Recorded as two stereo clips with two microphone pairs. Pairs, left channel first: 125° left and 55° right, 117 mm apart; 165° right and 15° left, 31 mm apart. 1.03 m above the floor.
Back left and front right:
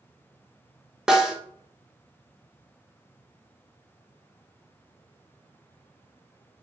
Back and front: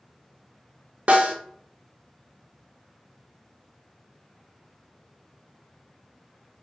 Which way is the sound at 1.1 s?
25° left.